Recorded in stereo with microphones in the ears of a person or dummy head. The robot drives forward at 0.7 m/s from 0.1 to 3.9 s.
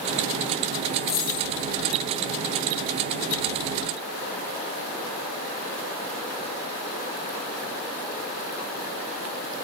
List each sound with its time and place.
1.0 s a dropped coin: 25° left (ahead or behind), 3 m